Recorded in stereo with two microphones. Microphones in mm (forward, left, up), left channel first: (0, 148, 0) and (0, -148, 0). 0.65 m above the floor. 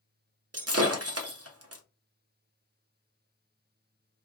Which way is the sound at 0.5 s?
55° right (ahead or behind).